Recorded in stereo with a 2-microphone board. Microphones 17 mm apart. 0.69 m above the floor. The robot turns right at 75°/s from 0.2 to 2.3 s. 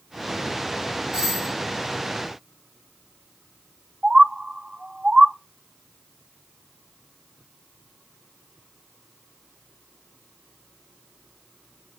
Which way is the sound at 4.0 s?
55° right (ahead or behind).